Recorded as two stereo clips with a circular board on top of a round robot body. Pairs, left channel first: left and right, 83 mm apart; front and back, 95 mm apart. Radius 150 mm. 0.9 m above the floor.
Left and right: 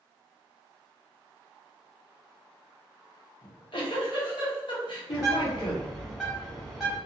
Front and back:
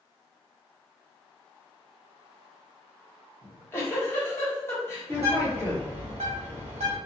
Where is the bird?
Straight behind, 0.9 m.